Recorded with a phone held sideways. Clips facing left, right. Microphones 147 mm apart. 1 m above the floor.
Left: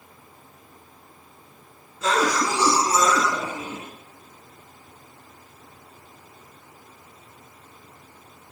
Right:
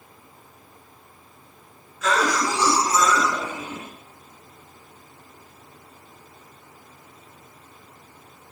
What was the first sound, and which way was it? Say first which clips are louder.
A cough: even; 30° left (ahead or behind).